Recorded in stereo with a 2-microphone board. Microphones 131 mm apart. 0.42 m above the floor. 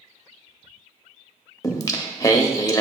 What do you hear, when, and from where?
1.6 s singing: 25° left (ahead or behind), 0.7 m